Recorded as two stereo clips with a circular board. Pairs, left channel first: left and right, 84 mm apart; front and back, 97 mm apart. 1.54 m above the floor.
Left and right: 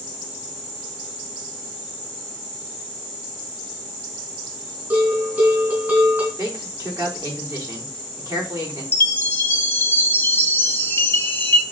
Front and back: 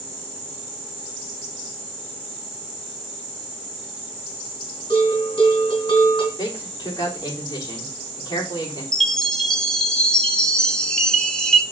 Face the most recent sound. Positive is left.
turn(degrees=70)